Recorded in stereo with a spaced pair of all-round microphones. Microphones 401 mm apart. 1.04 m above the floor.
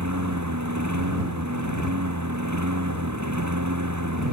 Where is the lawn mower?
45° right (ahead or behind).